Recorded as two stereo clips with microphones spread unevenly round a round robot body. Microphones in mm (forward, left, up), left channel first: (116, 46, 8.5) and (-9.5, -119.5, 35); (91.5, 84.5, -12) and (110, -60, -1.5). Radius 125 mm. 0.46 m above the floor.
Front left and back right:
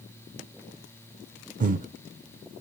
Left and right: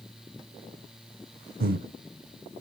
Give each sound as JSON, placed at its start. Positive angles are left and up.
{"t": 1.6, "sound": "breathing", "azimuth_deg": -75, "distance_m": 0.7}